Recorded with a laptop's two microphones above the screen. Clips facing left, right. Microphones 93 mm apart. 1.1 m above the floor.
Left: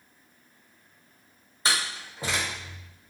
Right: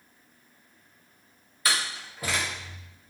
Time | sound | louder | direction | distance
1.6 | a door slam | left 1 dB | 25° left (ahead or behind) | 0.6 m